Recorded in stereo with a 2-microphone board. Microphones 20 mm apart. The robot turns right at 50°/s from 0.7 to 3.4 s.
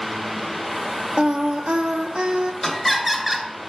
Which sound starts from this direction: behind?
Laughter, at 2.6 s.